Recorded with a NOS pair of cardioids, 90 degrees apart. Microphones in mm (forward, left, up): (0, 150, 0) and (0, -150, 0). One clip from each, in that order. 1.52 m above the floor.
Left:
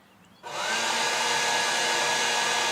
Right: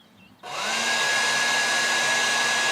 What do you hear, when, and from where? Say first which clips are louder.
0.4 s a hair dryer: right 2 dB; 25° right, 0.7 m